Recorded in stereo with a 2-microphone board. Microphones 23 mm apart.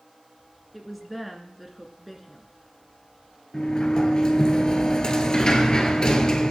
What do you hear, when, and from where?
0.7 s a woman speaking: 5° right (ahead or behind), 1.7 m
3.5 s a sliding door: 35° left (ahead or behind), 1.5 m